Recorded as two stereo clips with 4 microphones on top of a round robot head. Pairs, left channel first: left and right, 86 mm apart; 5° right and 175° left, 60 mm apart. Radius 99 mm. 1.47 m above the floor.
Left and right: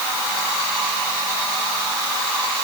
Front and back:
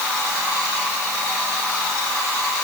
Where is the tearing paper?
I don't hear tearing paper.